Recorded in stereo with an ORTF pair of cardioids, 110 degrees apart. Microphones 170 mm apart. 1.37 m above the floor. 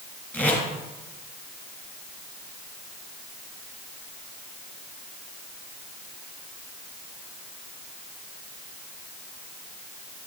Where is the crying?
I don't hear crying.